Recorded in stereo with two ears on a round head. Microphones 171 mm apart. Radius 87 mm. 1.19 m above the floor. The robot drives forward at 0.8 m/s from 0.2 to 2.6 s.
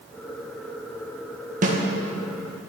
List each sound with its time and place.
1.6 s a snare drum: 45° right (ahead or behind), 1.3 m; by 1.8 s 40° right (ahead or behind), 1.4 m